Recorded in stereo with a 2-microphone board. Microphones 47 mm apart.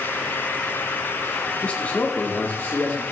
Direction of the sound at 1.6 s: 30° left (ahead or behind).